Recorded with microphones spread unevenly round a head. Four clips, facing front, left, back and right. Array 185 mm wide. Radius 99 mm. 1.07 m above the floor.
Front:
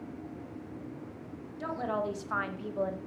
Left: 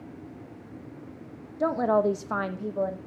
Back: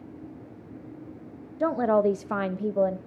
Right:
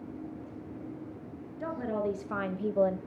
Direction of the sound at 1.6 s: 140° left.